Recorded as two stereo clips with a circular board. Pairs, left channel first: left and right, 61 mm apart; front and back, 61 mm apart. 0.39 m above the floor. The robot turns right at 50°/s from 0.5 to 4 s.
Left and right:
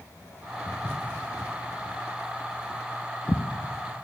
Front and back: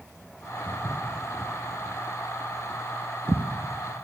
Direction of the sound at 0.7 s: 30° left.